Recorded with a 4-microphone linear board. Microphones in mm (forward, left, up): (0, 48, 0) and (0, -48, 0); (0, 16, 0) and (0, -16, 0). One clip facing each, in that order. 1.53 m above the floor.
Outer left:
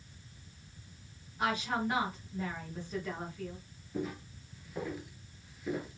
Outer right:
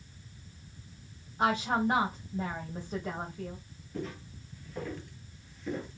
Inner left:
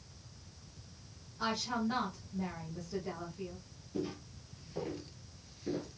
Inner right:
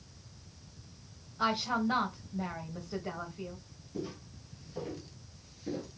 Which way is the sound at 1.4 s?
35° right (ahead or behind).